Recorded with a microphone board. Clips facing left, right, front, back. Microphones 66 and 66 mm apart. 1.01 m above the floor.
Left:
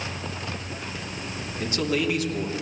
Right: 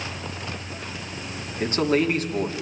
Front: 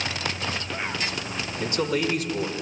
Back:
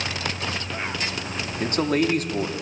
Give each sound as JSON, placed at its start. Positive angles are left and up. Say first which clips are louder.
{"t": 1.6, "sound": "a man speaking", "louder": "right 4 dB, back 3 dB", "azimuth_deg": -140, "distance_m": 2.5}